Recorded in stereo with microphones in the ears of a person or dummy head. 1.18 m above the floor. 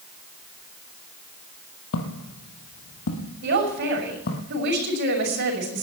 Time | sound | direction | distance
1.9 | footsteps | 65° left (ahead or behind) | 2.5 m
3.4 | a man speaking | 55° right (ahead or behind) | 6 m